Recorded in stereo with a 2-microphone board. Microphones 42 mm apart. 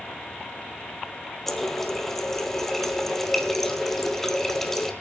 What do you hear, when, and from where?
1.5 s a running tap: 10° left (ahead or behind), 1.8 m